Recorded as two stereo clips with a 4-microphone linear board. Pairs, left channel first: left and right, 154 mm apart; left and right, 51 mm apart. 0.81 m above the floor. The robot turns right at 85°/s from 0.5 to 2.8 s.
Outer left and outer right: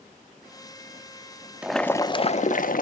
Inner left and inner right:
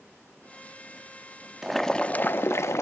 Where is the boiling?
10° right, 0.6 m; by 2.8 s 90° left, 0.6 m.